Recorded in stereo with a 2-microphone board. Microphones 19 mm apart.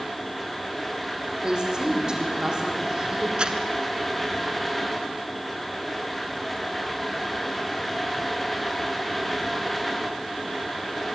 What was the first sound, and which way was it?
A woman speaking, 35° right (ahead or behind).